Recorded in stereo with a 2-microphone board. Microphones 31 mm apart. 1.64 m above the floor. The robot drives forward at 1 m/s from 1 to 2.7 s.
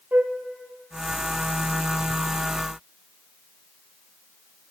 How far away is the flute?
About 0.6 m.